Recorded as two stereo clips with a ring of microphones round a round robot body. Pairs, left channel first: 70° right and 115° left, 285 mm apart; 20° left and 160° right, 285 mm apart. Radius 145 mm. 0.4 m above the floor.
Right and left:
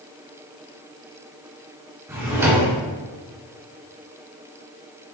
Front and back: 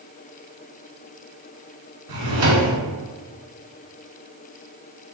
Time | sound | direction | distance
2.1 | a drawer | 165° right | 1.3 m